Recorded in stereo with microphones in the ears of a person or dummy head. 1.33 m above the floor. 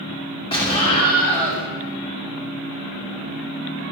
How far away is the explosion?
About 2.5 m.